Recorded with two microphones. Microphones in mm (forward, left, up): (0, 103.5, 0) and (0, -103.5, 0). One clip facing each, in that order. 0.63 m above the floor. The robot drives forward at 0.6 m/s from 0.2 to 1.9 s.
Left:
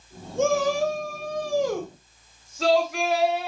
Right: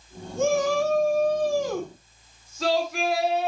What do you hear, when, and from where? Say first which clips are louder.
0.4 s a shout: even; 75° left (ahead or behind), 4.5 m